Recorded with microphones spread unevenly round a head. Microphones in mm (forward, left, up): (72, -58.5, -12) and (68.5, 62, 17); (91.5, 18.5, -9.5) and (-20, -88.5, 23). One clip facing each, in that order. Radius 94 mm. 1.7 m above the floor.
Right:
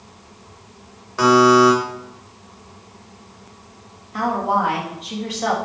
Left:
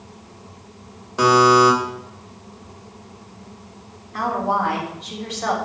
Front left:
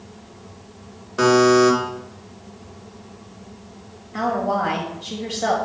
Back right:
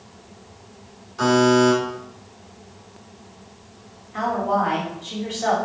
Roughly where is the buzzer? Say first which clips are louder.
Right 2 dB, front left 2 dB; ahead left.